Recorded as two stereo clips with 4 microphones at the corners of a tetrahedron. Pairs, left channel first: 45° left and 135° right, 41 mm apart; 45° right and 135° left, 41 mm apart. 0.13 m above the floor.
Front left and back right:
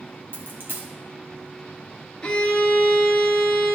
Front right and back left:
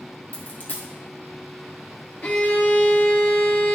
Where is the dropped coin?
95° right, 1.9 m.